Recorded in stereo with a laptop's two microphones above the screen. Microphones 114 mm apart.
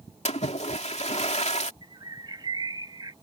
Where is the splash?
75° left (ahead or behind).